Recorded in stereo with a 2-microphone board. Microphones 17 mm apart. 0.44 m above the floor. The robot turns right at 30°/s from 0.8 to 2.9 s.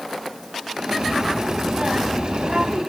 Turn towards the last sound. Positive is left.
turn(degrees=-105)